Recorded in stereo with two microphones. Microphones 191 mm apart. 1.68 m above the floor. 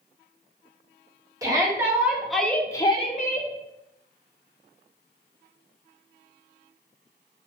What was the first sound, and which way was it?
A shout, 15° right (ahead or behind).